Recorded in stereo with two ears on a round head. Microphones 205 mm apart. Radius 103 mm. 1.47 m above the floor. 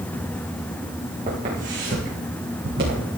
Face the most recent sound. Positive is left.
turn(degrees=-45)  # may be behind; listen again after turning